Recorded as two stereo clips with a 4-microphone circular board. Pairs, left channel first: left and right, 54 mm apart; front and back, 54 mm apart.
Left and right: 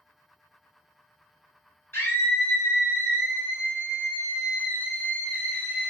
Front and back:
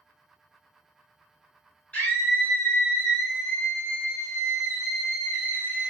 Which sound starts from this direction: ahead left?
A scream, at 1.9 s.